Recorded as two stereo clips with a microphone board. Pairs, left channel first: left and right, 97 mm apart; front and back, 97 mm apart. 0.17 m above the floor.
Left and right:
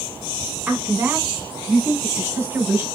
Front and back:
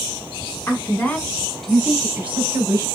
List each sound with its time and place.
0.7 s a woman speaking: 30° right, 1.2 m; by 2.9 s 135° right, 1.3 m